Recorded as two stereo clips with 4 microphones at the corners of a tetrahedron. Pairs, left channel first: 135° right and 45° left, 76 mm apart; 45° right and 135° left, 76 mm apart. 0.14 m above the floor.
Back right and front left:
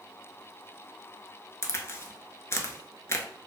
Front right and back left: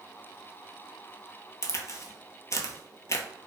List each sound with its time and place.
1.6 s a crack: 85° right, 0.5 m